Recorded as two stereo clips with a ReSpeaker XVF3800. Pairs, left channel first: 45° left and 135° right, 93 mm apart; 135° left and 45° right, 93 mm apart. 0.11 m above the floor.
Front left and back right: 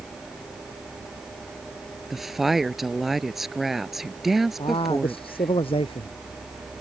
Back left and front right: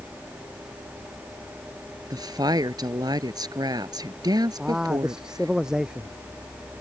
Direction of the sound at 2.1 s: 50° right.